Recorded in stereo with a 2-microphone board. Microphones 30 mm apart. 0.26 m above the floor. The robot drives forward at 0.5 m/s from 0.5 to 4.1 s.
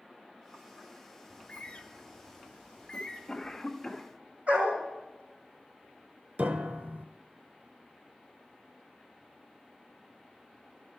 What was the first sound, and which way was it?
A bird, 45° left (ahead or behind).